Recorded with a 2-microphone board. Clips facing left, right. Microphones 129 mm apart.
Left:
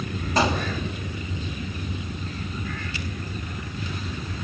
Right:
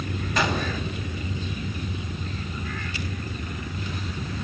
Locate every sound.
0.4 s a gunshot: 35° left (ahead or behind), 1.7 m